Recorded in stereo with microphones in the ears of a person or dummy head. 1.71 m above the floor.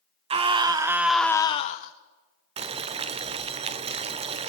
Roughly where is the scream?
Right.